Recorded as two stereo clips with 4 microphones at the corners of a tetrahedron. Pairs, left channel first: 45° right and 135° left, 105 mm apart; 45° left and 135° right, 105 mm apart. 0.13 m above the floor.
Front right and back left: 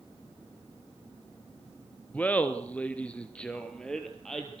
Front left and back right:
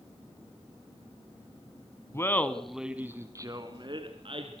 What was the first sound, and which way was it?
Laughter, 15° left.